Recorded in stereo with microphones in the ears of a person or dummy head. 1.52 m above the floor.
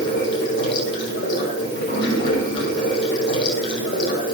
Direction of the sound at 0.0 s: 35° left (ahead or behind).